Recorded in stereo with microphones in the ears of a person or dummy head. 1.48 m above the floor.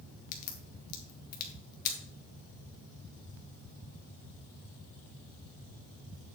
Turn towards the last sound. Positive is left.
turn(degrees=50)  # may be behind; listen again after turning